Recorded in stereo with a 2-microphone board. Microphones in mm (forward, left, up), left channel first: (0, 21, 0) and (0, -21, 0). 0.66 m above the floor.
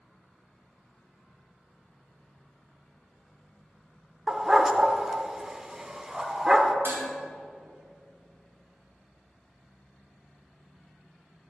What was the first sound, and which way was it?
A dog barking, 15° right (ahead or behind).